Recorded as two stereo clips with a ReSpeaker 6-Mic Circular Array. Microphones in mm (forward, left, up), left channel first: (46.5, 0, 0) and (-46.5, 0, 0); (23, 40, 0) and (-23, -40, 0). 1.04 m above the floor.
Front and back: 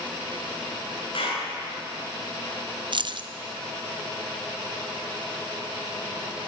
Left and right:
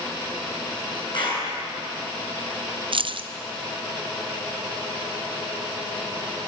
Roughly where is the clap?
Ahead left.